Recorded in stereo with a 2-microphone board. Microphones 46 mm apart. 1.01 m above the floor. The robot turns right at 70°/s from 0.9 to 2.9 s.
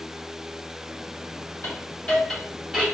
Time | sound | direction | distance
1.6 | a hiss | 55° left (ahead or behind) | 1.8 m